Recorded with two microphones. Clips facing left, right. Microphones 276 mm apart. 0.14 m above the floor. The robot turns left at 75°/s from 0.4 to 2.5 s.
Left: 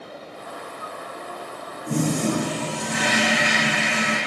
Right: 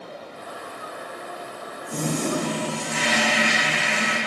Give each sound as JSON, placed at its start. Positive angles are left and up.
{"t": 1.9, "sound": "a toilet flushing", "azimuth_deg": 105, "distance_m": 2.0}